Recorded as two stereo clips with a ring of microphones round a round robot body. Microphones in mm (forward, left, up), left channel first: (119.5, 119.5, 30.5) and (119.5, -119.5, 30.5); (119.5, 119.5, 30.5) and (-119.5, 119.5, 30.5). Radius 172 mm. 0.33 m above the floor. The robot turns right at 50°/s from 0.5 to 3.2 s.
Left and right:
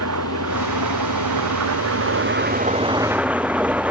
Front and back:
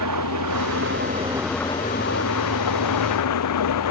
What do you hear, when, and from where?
0.0 s an engine running: 140° right; by 3.9 s 5° right